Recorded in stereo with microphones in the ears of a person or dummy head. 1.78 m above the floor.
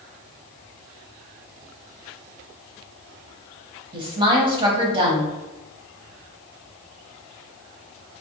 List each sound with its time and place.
3.9 s a woman speaking: 30° right (ahead or behind), 1.3 m